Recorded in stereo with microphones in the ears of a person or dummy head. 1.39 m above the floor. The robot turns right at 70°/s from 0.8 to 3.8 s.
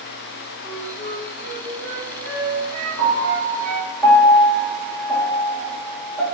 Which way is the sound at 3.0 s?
65° left (ahead or behind).